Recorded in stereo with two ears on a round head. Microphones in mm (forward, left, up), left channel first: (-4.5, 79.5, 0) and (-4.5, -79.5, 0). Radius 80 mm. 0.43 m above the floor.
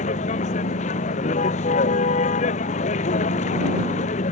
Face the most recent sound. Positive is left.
turn(degrees=40)  # may be behind; listen again after turning